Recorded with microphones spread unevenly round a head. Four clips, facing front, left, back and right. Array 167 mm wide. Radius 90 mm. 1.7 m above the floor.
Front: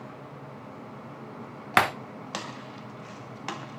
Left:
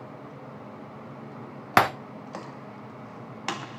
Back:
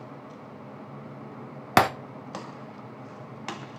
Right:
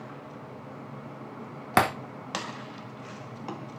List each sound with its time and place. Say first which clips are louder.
1.8 s breaking glass: left 2 dB, back 3 dB; straight behind, 0.9 m